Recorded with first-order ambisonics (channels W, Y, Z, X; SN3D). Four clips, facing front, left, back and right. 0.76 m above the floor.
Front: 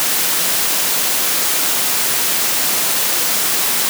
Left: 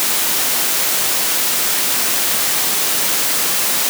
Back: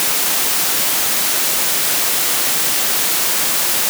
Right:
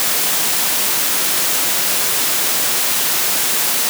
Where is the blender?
I don't hear a blender.